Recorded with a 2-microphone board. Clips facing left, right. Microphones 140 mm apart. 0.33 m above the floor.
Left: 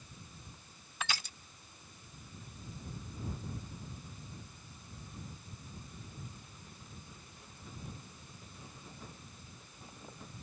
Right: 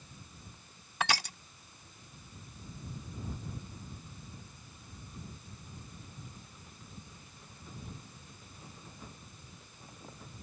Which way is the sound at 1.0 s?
70° right (ahead or behind).